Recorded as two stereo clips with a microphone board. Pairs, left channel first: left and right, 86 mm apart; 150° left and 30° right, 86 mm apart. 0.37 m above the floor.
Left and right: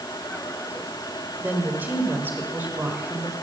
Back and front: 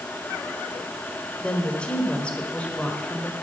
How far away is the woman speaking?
About 1.4 m.